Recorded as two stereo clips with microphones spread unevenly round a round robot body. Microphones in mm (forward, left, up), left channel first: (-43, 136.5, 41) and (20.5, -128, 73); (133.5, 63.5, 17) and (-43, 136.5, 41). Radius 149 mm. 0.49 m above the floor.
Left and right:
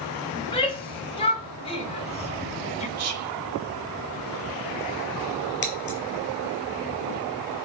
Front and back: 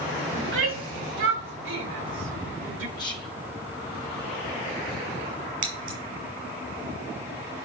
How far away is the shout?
About 3.5 m.